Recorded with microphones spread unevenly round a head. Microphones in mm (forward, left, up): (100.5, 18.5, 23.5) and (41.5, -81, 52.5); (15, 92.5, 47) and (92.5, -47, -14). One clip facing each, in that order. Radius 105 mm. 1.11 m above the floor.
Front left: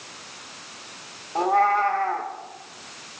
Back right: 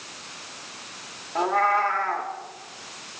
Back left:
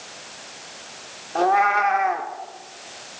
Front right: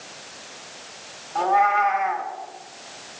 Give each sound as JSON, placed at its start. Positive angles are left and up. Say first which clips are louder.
{"t": 1.4, "sound": "a cat meowing", "louder": "front left 2 dB, back left 1 dB", "azimuth_deg": 140, "distance_m": 1.1}